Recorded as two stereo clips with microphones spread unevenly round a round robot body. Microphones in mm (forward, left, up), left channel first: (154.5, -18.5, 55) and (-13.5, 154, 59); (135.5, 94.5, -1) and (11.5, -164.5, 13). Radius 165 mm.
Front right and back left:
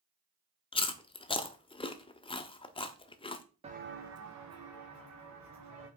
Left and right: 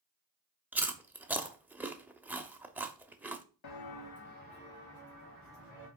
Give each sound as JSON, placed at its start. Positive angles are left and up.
{"t": 0.7, "sound": "chewing", "azimuth_deg": -35, "distance_m": 0.7}
{"t": 3.6, "sound": "footsteps", "azimuth_deg": 70, "distance_m": 0.9}